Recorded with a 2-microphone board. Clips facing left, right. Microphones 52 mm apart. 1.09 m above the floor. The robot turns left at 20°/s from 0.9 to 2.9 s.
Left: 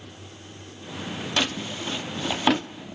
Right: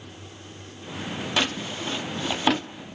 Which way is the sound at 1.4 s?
10° right (ahead or behind).